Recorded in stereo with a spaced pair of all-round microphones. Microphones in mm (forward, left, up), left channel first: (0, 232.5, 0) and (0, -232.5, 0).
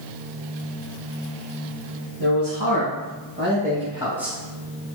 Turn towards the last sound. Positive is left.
turn(degrees=0)  # may be behind; listen again after turning